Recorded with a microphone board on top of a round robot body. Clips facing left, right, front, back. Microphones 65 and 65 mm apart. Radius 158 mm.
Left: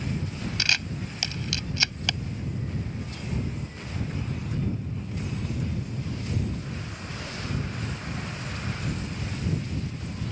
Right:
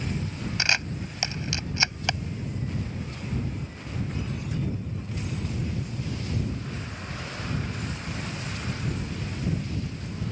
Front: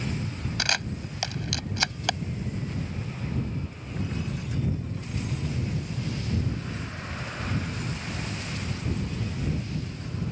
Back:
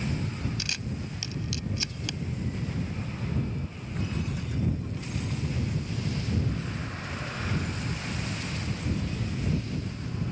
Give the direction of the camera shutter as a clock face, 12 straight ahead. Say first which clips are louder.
Right 2 dB, front 6 dB; 1 o'clock.